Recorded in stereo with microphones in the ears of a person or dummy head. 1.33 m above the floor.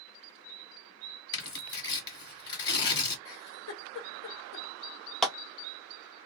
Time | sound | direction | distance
1.3 | tearing paper | 25° left (ahead or behind) | 1.4 m
3.2 | a giggle | 60° left (ahead or behind) | 1.2 m
5.2 | a clap | centre (ahead or behind) | 0.6 m